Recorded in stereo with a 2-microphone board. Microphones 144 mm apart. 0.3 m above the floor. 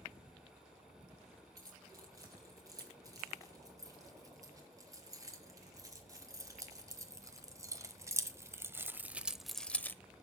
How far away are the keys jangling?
About 6.5 m.